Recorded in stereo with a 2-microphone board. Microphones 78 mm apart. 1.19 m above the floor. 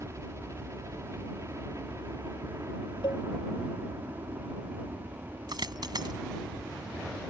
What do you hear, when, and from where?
0.0 s a helicopter: 40° right (ahead or behind)
3.0 s a cowbell: 80° left
5.5 s a dropped coin: 65° right (ahead or behind)